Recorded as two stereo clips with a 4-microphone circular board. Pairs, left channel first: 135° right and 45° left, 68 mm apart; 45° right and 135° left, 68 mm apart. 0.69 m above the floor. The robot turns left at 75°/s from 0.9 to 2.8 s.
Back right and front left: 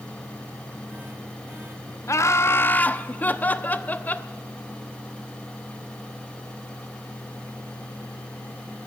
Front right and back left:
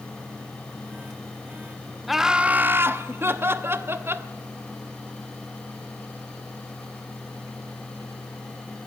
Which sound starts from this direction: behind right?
Laughter, at 2.1 s.